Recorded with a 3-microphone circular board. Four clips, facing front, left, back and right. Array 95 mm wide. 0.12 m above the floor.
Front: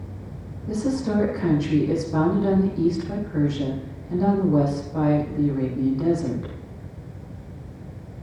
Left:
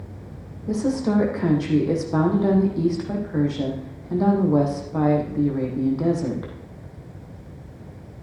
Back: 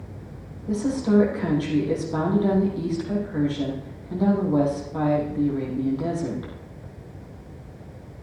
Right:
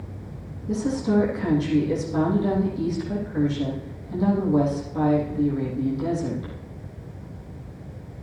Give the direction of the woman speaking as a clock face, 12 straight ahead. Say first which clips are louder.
Left 2 dB, back 2 dB; 9 o'clock.